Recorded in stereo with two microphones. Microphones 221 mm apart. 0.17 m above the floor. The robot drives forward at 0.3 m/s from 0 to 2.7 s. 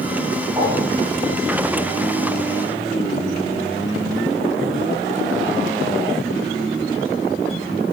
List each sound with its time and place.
0.6 s a whoosh: 20° right (ahead or behind), 9 m